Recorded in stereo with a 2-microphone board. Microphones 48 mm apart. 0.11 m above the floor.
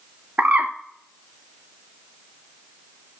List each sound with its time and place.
0.4 s a bird: 35° right (ahead or behind), 0.8 m